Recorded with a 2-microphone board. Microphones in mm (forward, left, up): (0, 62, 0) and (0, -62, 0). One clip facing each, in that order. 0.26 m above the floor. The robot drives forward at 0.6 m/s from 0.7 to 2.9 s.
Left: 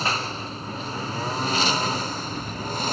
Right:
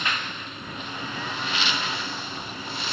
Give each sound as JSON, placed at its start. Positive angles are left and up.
{"t": 0.0, "sound": "a lawn mower", "side_deg": 35}